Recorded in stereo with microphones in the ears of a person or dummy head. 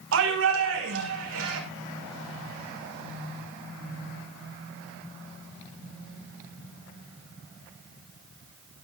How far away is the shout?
About 6 m.